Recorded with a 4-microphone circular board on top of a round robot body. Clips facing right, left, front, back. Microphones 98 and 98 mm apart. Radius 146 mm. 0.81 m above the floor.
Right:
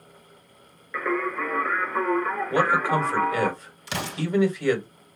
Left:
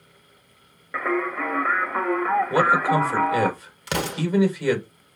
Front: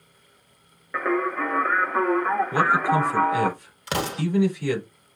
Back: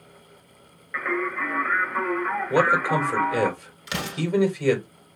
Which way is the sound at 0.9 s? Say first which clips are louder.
Left 2 dB, front 3 dB; 45° left.